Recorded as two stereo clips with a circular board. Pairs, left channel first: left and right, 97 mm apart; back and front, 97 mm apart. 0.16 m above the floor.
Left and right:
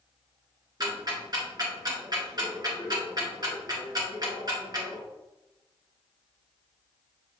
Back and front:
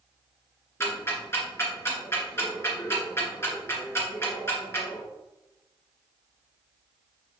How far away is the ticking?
About 2.5 m.